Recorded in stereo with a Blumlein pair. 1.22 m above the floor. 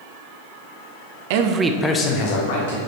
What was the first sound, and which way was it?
A man speaking, 50° right.